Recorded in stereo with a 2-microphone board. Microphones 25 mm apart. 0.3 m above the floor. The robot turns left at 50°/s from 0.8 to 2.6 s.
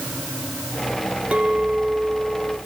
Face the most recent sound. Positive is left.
turn(degrees=180)